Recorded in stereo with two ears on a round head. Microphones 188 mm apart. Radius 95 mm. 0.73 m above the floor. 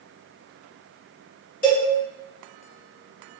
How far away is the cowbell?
About 1.4 m.